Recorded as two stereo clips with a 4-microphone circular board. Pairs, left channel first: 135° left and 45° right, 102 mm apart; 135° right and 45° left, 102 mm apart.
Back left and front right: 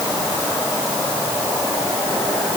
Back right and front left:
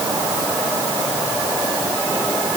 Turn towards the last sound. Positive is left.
No sound to turn to.